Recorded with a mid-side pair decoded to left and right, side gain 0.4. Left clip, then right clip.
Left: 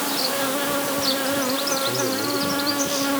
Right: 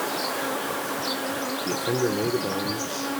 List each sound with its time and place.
0.0 s an insect: 60° left, 1.2 m
1.6 s a man speaking: 40° right, 2.5 m